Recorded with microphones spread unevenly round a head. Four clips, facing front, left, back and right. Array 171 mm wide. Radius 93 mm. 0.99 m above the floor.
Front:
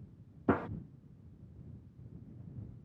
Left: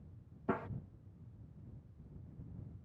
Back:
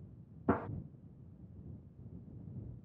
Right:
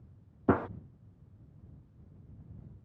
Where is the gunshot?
60° right.